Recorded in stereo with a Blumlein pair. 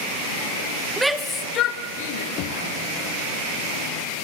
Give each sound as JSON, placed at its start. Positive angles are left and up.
{"t": 1.0, "sound": "a shout", "azimuth_deg": -10, "distance_m": 1.2}
{"t": 2.4, "sound": "knocking", "azimuth_deg": 40, "distance_m": 1.1}